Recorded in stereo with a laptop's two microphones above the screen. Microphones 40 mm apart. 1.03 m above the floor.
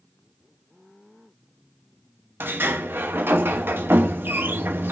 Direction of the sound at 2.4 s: 70° right (ahead or behind).